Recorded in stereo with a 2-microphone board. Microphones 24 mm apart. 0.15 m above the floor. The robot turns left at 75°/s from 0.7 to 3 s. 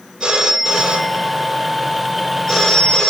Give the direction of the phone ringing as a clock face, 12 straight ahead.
2 o'clock.